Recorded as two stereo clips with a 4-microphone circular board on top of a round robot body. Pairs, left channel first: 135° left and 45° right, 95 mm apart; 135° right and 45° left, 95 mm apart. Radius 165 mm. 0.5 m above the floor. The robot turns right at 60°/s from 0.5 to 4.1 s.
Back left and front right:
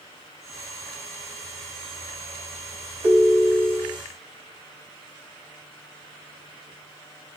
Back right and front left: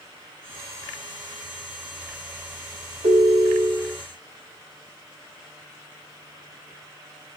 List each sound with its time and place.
3.0 s a ringtone: 30° left, 2.5 m; by 4.0 s 85° left, 2.5 m